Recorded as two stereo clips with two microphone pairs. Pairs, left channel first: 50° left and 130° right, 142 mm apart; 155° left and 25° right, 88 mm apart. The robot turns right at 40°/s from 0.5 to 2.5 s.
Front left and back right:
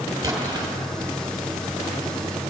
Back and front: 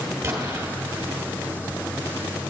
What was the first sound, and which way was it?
An explosion, 75° right.